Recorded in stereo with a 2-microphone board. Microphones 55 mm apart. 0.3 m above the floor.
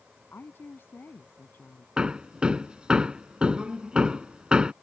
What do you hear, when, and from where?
0.3 s a woman speaking: 45° left (ahead or behind)
2.0 s hammering: 20° right (ahead or behind)